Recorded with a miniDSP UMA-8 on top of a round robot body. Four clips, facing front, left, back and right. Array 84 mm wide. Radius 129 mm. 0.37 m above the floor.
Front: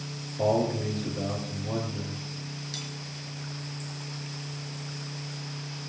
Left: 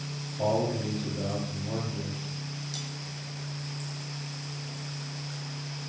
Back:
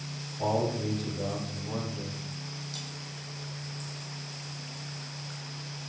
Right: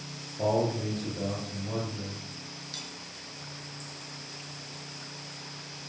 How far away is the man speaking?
About 8.5 m.